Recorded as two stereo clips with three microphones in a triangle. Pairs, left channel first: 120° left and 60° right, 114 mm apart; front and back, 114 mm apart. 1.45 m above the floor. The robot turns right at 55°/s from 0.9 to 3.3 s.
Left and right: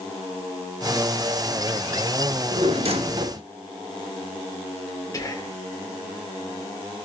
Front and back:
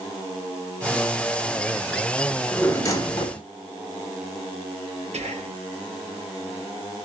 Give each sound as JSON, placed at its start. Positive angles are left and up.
{"t": 2.3, "sound": "a drawer", "azimuth_deg": -85, "distance_m": 1.0}
{"t": 5.1, "sound": "whispering", "azimuth_deg": 180, "distance_m": 1.3}